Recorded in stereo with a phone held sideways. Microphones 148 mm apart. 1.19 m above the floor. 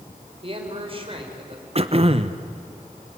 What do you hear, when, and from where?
0.4 s a man speaking: 40° right (ahead or behind), 4.5 m
1.8 s throat clearing: 40° right (ahead or behind), 1.0 m